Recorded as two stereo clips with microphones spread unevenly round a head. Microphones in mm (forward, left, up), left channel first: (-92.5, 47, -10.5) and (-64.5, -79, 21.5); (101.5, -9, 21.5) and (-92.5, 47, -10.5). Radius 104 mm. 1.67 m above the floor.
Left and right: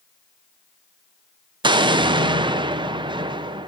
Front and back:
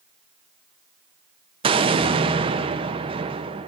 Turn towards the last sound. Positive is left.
turn(degrees=-130)